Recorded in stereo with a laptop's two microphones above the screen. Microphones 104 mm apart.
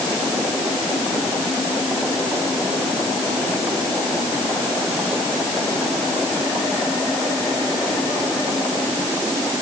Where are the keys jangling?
I don't hear keys jangling.